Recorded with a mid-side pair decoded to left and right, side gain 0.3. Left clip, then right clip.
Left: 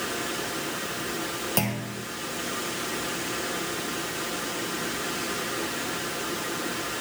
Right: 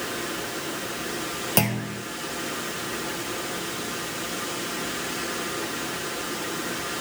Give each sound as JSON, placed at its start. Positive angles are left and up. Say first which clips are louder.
{"t": 1.6, "sound": "a clunk", "louder": "right 3 dB", "azimuth_deg": -40, "distance_m": 1.6}